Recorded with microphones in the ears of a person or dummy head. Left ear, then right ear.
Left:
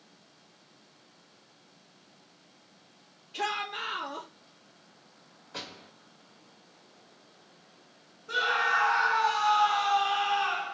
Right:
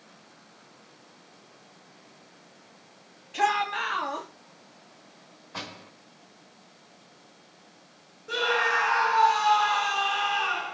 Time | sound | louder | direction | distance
3.3 | a shout | right 7 dB | 20° right (ahead or behind) | 1.3 m
5.5 | a door slam | right 3 dB | 25° left (ahead or behind) | 1.9 m
8.3 | a scream | right 2 dB | 20° right (ahead or behind) | 1.8 m